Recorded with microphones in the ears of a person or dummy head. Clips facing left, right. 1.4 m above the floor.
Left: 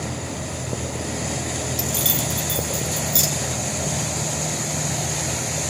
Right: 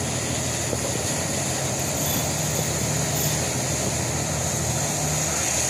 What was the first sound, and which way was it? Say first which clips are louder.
Keys jangling: even; 75° left (ahead or behind).